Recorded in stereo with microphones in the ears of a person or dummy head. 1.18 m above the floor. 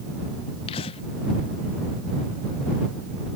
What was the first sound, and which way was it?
Breathing, 30° left (ahead or behind).